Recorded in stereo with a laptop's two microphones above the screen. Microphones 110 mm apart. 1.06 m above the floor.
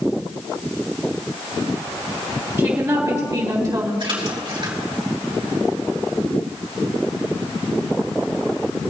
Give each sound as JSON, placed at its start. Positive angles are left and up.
{"t": 2.6, "sound": "a woman speaking", "side_deg": -25, "distance_m": 2.5}
{"t": 4.0, "sound": "a splash", "side_deg": -50, "distance_m": 3.5}